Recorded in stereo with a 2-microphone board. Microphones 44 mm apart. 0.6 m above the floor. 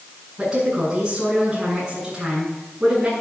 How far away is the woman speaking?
About 7 m.